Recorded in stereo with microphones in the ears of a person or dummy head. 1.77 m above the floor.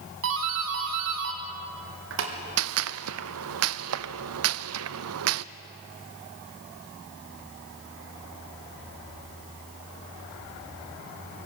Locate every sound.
0.2 s a doorbell: 65° right (ahead or behind), 3 m
2.6 s a gunshot: 75° right (ahead or behind), 0.6 m